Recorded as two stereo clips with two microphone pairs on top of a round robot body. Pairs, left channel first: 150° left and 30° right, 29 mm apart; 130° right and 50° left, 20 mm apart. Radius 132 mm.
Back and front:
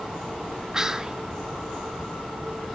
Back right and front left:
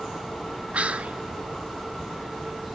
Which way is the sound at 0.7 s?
45° left.